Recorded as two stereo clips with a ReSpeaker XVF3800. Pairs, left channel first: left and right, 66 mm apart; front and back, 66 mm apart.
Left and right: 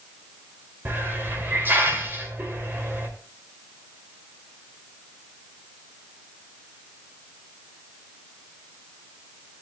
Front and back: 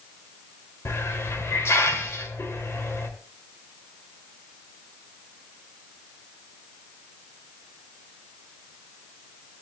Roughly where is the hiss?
Ahead right.